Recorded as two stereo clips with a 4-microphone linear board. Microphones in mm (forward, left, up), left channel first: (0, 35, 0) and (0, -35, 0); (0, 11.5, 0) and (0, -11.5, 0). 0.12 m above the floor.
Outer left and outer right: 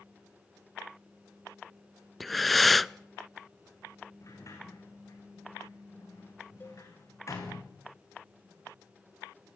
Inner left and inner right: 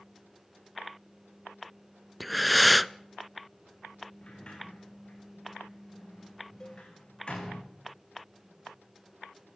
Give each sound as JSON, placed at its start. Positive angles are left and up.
{"t": 2.2, "sound": "breathing", "side_deg": 0, "distance_m": 0.5}
{"t": 4.2, "sound": "a sliding door", "side_deg": 50, "distance_m": 6.5}
{"t": 6.6, "sound": "a cowbell", "side_deg": 30, "distance_m": 1.8}